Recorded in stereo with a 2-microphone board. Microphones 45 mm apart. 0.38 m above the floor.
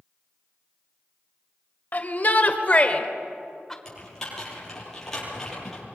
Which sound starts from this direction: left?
A shout, at 1.9 s.